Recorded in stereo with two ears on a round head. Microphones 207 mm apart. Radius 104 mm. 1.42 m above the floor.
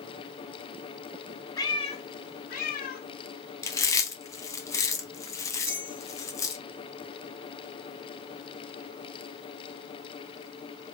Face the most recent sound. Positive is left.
turn(degrees=-25)  # may be behind; listen again after turning